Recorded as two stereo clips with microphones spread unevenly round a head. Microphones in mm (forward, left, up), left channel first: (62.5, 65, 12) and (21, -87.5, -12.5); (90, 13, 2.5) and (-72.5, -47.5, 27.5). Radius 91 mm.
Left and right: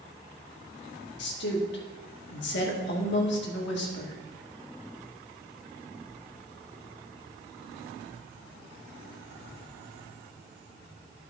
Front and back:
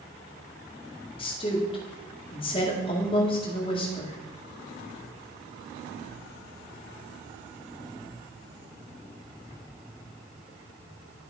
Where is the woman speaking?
80° left, 2 m.